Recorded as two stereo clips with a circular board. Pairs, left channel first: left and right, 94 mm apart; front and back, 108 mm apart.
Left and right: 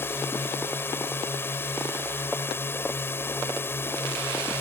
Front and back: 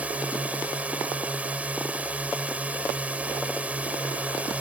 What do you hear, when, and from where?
0.0 s a drone: 120° left